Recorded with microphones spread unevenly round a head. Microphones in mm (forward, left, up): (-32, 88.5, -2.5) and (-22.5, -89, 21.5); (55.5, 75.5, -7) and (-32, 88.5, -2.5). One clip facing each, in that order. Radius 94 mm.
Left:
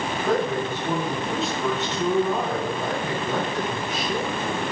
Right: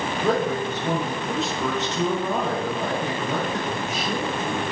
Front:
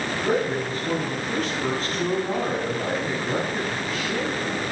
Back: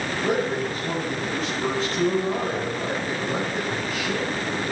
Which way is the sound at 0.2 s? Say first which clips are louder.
Right 1 dB, even; 110° right.